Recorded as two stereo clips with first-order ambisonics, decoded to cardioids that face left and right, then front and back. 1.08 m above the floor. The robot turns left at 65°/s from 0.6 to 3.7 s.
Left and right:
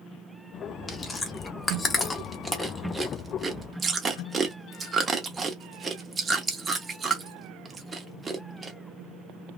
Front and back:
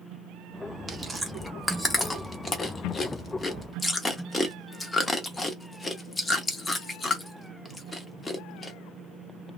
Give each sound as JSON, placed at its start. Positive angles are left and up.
{"t": 0.9, "sound": "chewing", "azimuth_deg": 135, "distance_m": 0.6}